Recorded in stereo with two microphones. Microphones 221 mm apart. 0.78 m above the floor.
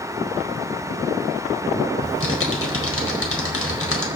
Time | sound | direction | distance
2.0 | typing on a keyboard | 75° left (ahead or behind) | 4.5 m